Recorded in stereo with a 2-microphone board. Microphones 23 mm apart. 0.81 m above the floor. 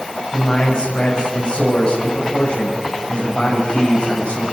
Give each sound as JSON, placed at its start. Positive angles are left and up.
{"t": 0.3, "sound": "a man speaking", "side_deg": 45, "distance_m": 5.5}